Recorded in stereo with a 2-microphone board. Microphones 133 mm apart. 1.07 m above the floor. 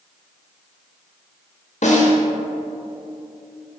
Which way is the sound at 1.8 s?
70° left (ahead or behind).